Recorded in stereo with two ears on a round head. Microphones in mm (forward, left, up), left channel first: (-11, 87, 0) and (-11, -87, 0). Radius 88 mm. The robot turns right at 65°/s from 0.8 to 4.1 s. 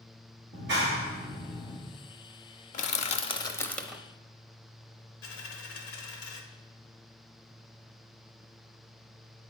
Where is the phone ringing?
I don't hear a phone ringing.